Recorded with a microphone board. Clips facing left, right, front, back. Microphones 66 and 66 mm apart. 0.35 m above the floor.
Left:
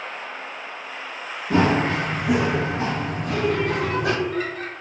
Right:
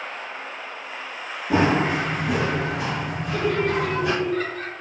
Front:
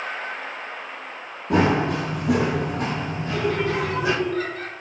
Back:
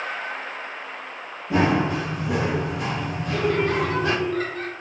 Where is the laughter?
175° left, 1.0 m.